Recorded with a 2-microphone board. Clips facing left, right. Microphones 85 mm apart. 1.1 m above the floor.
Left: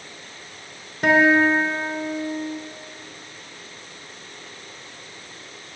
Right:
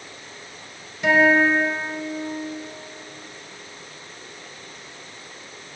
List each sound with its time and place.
1.0 s a guitar: 50° left (ahead or behind), 1.0 m